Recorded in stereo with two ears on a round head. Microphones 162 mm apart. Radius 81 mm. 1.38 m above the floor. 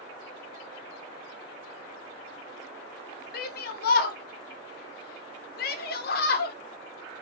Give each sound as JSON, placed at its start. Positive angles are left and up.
{"t": 3.3, "sound": "a shout", "side_deg": 55, "distance_m": 1.0}